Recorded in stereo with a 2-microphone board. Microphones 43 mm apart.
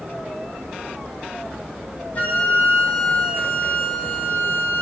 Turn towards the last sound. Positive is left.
turn(degrees=40)  # may be behind; listen again after turning